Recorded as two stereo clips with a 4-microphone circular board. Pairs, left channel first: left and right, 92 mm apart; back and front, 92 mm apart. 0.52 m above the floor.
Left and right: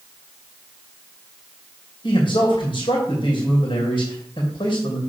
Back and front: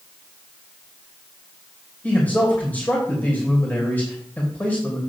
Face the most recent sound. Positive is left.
turn(degrees=110)